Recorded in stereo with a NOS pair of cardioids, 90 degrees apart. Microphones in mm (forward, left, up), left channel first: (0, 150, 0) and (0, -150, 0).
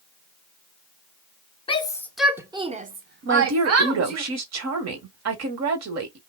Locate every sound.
1.7 s a shout: 20° left, 0.8 m; by 4.2 s 60° right, 1.2 m
3.2 s a woman speaking: 55° right, 1.2 m